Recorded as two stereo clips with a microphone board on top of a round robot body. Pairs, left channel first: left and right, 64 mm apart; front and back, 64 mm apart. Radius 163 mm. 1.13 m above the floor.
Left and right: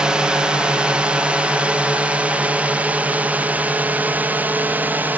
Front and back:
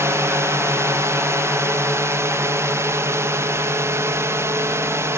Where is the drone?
160° right; by 5.2 s 145° right.